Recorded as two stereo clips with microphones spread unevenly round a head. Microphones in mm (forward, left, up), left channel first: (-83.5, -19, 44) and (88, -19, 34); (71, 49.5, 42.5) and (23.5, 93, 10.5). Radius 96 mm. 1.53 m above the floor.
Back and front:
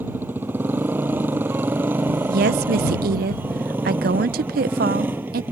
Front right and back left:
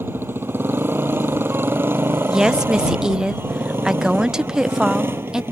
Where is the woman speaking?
40° left.